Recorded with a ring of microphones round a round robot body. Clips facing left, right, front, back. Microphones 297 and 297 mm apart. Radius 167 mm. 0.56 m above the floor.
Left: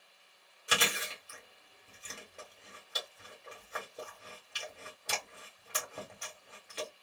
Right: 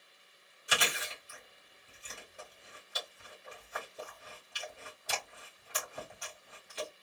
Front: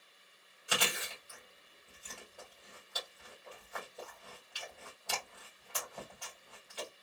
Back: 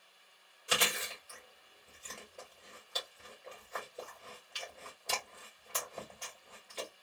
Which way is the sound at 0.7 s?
110° left.